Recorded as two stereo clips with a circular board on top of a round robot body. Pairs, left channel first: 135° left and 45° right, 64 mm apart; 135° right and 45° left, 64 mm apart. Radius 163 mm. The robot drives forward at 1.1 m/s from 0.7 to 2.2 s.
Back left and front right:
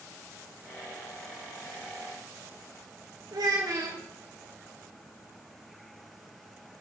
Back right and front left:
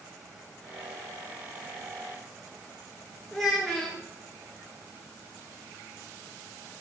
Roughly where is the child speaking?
Ahead right.